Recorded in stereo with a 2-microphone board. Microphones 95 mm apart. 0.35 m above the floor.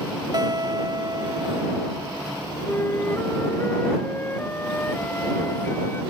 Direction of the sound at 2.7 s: 20° left (ahead or behind).